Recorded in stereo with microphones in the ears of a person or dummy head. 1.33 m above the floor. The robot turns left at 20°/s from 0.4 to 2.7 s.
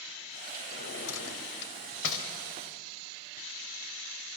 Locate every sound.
0.7 s a drawer: 70° left (ahead or behind), 3 m